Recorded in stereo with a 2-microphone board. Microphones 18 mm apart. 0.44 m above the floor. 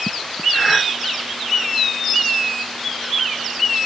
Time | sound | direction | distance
0.5 | breathing | 55° left (ahead or behind) | 2.5 m